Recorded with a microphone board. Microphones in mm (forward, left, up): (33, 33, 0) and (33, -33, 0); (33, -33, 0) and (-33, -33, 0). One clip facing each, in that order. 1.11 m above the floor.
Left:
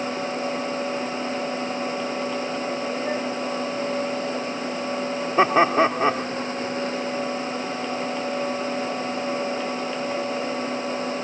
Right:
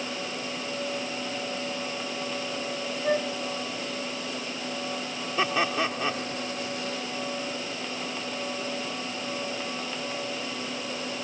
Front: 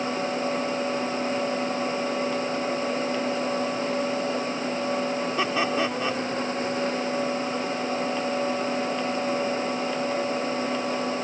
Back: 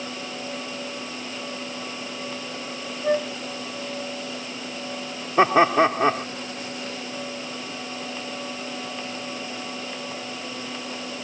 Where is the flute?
165° right.